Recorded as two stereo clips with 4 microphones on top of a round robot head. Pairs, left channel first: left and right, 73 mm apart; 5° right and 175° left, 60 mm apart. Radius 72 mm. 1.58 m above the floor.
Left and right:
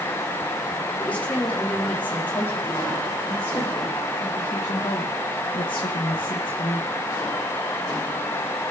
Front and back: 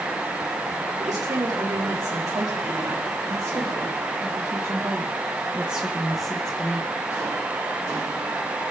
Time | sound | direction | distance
1.0 | a woman speaking | 160° left | 4.5 m